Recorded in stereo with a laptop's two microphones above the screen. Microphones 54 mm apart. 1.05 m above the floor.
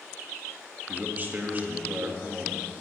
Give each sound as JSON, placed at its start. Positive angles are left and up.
{"t": 0.9, "sound": "a man speaking", "side_deg": -35, "distance_m": 1.3}